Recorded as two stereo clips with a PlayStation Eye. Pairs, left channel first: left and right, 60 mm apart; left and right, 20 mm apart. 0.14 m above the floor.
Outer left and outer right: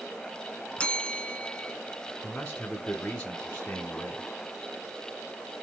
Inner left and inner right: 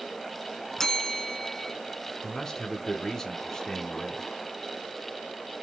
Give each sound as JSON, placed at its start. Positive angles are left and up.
{"t": 0.8, "sound": "a bell", "side_deg": 20, "distance_m": 0.6}
{"t": 2.2, "sound": "a man speaking", "side_deg": 15, "distance_m": 1.1}